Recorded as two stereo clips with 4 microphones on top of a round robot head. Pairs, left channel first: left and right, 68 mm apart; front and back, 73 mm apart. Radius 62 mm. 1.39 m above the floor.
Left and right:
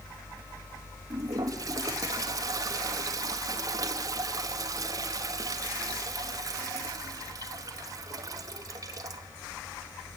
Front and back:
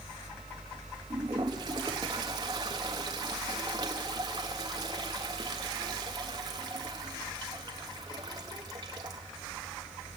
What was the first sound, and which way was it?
A toilet flushing, 130° right.